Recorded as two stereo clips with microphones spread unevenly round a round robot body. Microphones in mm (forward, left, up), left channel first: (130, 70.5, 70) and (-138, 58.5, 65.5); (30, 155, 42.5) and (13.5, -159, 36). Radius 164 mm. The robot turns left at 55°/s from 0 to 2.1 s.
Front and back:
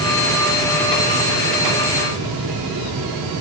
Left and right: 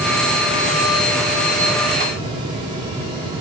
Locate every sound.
Only background noise.